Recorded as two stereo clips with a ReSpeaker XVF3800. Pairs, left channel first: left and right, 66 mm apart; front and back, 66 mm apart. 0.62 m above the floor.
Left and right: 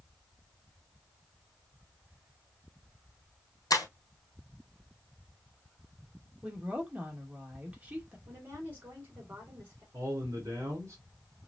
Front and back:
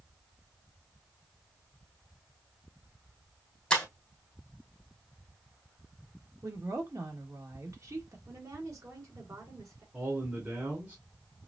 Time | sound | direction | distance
3.7 | breaking glass | 75° left | 1.7 m
6.4 | a woman speaking | 155° right | 1.5 m
8.3 | a woman speaking | 145° right | 2.5 m
9.9 | a man speaking | 115° right | 2 m